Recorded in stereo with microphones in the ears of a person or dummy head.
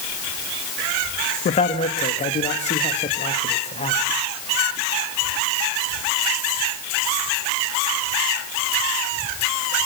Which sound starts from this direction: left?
A man speaking, at 1.4 s.